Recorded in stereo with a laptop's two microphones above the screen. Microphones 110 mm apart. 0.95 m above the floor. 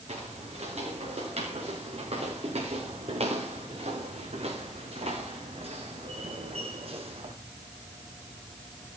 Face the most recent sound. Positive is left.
turn(degrees=-60)  # may be behind; listen again after turning